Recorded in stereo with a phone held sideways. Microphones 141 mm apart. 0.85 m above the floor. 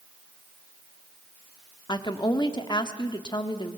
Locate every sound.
1.9 s a woman speaking: 30° left (ahead or behind), 1.5 m